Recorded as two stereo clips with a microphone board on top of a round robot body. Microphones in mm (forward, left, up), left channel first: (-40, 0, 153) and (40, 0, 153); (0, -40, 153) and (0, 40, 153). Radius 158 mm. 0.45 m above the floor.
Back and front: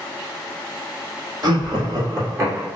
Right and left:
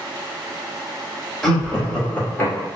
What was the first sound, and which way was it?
Laughter, straight ahead.